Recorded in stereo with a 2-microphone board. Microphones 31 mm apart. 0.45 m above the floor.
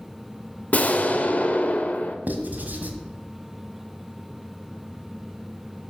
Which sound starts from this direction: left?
An explosion, at 0.7 s.